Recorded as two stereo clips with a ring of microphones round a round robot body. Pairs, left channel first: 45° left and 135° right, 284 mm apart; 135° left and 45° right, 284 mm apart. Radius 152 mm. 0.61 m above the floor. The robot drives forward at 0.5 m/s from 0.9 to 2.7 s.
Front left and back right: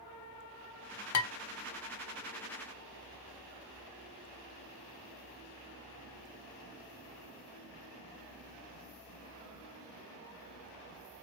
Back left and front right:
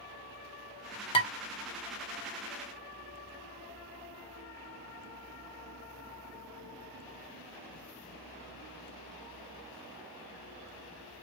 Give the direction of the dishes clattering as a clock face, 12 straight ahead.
10 o'clock.